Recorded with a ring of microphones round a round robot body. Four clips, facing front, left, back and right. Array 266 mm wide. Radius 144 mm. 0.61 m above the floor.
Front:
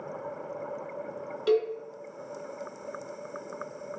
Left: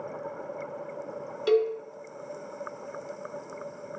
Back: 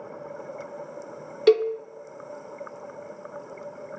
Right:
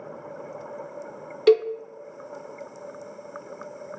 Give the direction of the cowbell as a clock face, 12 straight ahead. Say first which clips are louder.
Right 5 dB, back 6 dB; 5 o'clock.